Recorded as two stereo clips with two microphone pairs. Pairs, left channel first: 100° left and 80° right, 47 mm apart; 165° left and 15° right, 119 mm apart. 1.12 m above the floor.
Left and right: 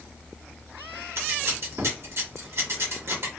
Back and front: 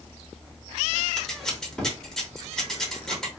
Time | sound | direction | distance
1.2 | scissors | 105° right | 1.2 m